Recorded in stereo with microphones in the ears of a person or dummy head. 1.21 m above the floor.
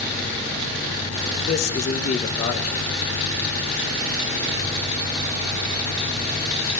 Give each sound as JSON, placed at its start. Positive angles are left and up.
{"t": 1.5, "sound": "a man speaking", "side_deg": 40, "distance_m": 1.4}